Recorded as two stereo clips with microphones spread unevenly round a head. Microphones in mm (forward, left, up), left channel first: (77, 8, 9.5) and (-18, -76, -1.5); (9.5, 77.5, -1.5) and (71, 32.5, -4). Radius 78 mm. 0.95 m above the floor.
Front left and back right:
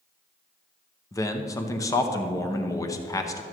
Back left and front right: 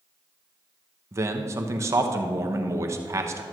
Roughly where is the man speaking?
Ahead.